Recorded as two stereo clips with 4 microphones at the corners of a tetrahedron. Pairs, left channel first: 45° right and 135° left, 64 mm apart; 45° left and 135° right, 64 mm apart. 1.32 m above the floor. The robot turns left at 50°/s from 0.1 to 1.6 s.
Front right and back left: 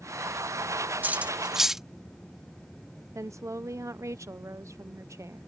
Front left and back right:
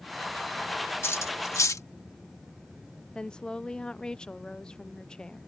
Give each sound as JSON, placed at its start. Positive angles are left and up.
{"t": 1.0, "sound": "cutlery clinking", "azimuth_deg": 80}
{"t": 3.1, "sound": "a woman speaking", "azimuth_deg": 120}